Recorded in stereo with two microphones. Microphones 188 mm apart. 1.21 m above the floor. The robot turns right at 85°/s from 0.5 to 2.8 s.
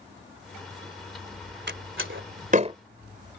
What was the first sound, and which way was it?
A door slam, 60° right (ahead or behind).